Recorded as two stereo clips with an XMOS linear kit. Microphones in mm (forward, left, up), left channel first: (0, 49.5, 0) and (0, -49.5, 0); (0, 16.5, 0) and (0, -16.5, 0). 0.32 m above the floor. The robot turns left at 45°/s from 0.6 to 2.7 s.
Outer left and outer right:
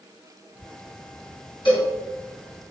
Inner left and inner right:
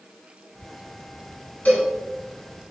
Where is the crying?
I don't hear crying.